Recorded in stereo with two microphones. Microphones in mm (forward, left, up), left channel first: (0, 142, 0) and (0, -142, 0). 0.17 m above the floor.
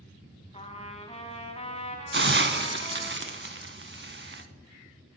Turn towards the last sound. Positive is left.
turn(degrees=-40)  # may be behind; listen again after turning